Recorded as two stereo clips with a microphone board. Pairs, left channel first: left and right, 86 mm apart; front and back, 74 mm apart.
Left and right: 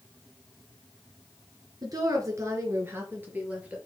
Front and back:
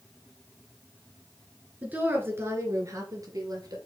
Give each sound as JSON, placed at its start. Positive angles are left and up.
{"t": 1.8, "sound": "a woman speaking", "azimuth_deg": -115, "distance_m": 2.5}